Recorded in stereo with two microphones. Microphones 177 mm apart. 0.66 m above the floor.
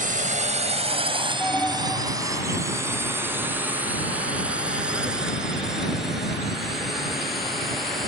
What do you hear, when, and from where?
0.0 s a drone: 50° right (ahead or behind); by 8.1 s centre (ahead or behind)
1.4 s an alarm: 10° left (ahead or behind)